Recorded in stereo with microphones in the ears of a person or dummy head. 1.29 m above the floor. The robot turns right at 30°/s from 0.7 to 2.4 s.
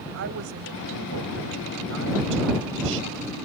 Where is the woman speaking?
115° right; by 3.4 s 65° right.